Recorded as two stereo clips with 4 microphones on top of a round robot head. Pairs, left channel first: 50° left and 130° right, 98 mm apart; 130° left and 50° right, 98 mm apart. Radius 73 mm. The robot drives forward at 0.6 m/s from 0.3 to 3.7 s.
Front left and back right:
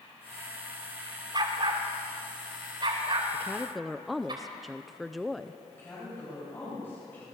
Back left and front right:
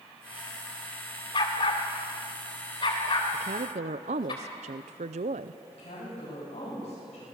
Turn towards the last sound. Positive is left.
turn(degrees=120)